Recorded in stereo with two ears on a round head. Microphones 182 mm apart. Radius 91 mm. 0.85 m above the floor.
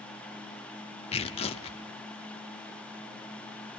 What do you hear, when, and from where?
1.1 s tearing paper: 30° left (ahead or behind), 1.0 m